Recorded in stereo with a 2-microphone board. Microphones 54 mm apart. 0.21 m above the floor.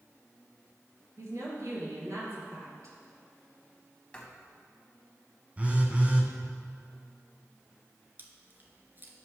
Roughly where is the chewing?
Right.